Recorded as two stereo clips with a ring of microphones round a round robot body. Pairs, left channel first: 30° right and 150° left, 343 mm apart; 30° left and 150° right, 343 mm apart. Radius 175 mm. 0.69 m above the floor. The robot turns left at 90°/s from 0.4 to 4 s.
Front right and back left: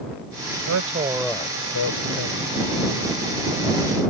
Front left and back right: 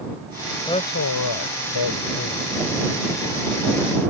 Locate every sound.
0.7 s a man speaking: 110° left; by 2.5 s 50° right